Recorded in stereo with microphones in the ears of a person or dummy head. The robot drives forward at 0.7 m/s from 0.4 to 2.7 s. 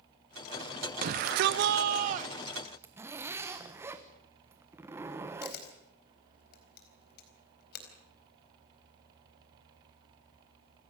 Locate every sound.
1.0 s a shout: 50° right (ahead or behind), 0.7 m; by 2.7 s 30° right (ahead or behind), 1.2 m
2.8 s a zipper: 15° right (ahead or behind), 1.2 m
5.4 s a camera shutter: 60° left (ahead or behind), 4 m